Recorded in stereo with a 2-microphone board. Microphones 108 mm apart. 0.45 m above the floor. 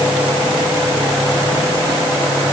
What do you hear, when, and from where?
Only background noise.